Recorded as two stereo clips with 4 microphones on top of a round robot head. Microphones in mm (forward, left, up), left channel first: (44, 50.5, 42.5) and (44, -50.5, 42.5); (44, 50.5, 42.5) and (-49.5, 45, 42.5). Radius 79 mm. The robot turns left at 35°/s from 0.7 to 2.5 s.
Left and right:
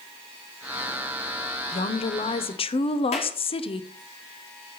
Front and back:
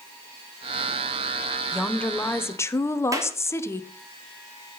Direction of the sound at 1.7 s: 90° left.